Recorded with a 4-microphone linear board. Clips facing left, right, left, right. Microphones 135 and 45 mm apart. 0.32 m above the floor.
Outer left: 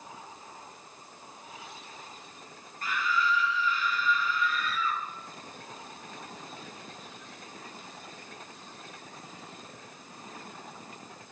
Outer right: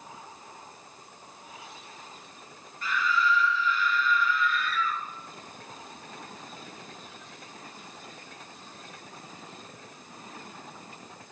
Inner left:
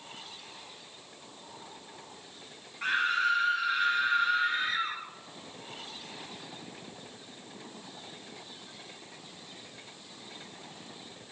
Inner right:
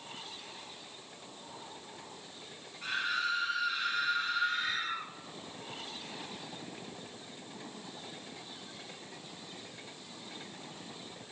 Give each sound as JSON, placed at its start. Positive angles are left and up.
{"t": 2.8, "sound": "a scream", "side_deg": 45, "distance_m": 5.0}